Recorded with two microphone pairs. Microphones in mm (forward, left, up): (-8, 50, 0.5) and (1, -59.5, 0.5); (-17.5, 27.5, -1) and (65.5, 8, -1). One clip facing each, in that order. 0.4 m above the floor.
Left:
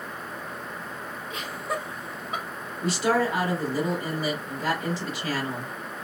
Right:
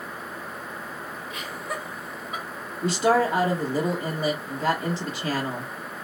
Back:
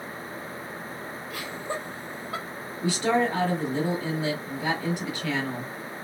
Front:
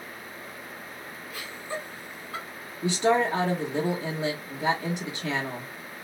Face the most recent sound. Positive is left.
turn(degrees=-50)